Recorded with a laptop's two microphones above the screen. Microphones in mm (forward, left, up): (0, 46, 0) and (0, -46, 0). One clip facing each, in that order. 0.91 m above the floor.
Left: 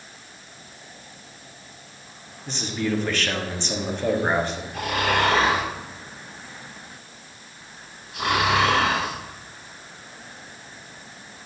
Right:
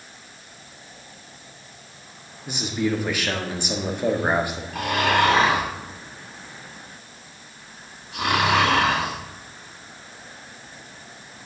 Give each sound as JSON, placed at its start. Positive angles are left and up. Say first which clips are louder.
{"t": 2.5, "sound": "a man speaking", "louder": "right 2 dB", "side_deg": -10, "distance_m": 1.6}
{"t": 4.7, "sound": "snoring", "louder": "right 3 dB", "side_deg": -85, "distance_m": 5.0}